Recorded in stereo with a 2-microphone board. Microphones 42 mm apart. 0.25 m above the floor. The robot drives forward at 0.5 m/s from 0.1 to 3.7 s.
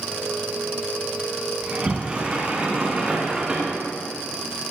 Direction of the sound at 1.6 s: 30° right (ahead or behind).